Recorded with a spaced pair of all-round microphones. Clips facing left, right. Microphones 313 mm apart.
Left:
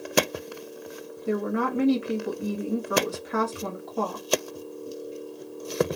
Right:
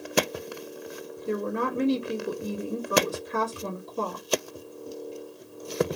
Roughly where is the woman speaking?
Left.